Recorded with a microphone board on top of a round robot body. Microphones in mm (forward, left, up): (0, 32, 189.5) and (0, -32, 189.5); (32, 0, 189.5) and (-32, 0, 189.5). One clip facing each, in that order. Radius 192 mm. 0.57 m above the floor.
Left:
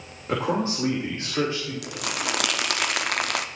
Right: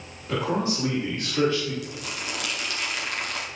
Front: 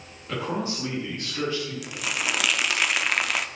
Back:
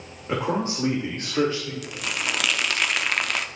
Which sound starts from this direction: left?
Crumpling, at 1.8 s.